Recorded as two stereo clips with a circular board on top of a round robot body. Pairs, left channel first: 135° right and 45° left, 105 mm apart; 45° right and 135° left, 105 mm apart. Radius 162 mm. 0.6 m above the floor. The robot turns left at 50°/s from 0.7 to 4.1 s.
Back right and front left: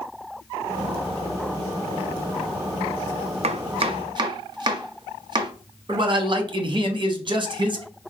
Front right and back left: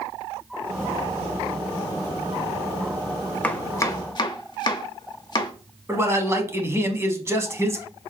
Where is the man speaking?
75° left, 1.0 m.